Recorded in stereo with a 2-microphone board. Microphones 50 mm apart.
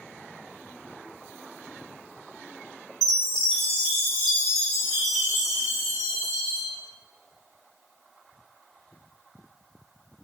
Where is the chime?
5° left (ahead or behind), 0.9 m.